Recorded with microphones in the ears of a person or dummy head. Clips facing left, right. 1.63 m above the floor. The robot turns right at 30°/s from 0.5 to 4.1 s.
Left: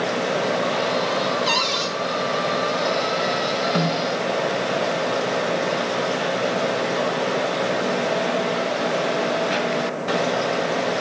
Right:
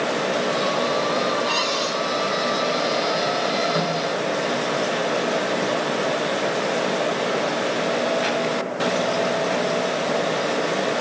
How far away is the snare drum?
About 6 m.